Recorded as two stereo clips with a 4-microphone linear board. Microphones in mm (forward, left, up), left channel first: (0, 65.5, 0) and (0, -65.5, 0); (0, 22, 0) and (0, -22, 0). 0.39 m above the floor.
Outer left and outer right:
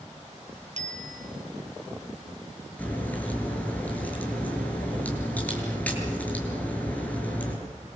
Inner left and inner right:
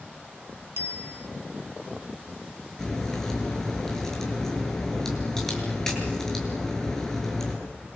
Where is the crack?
10° left (ahead or behind), 7.5 m.